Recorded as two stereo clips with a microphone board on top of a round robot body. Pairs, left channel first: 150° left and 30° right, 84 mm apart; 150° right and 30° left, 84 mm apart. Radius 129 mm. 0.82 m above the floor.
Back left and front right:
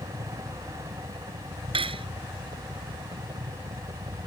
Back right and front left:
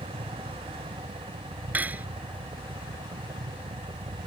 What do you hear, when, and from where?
0.0 s a helicopter: 10° left
1.7 s cutlery clinking: 40° right